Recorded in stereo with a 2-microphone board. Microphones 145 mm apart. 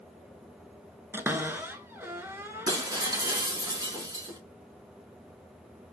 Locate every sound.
1.1 s a cupboard door: 15° right (ahead or behind), 0.6 m
2.7 s breaking glass: 30° right (ahead or behind), 0.8 m